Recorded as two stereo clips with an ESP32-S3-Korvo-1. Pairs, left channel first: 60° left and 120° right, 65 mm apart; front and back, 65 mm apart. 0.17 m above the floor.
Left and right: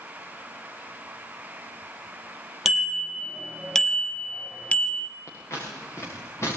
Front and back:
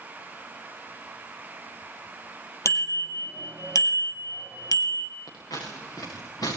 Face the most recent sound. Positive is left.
turn(degrees=15)